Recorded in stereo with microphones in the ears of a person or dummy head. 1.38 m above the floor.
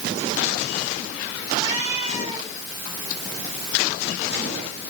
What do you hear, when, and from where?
1.5 s a cat meowing: 35° right (ahead or behind), 7 m